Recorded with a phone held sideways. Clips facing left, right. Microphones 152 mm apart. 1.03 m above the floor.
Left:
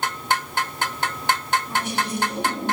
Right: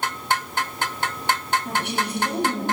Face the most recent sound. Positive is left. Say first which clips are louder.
# even
turn(degrees=-80)